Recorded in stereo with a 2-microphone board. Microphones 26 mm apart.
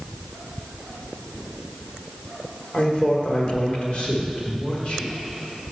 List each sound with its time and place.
2.7 s a man speaking: 45° left (ahead or behind), 1.3 m